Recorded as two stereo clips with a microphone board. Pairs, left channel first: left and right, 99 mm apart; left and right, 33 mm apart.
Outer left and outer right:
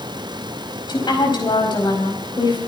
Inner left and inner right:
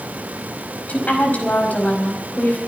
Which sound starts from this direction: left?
A woman speaking, at 0.9 s.